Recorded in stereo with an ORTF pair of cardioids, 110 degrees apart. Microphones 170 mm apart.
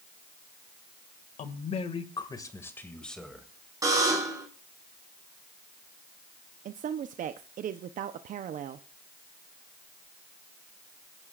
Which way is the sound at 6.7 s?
50° right.